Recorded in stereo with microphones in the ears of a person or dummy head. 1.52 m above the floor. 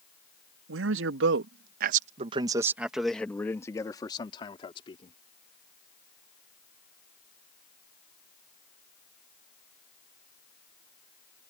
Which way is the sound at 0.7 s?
85° right.